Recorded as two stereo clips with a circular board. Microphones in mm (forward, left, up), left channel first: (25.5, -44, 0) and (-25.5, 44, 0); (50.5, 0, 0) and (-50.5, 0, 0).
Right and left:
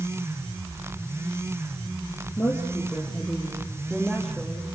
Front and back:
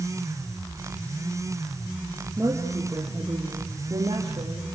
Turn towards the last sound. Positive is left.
turn(degrees=-150)